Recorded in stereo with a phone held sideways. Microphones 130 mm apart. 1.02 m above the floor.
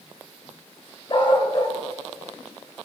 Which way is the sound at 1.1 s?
40° left (ahead or behind).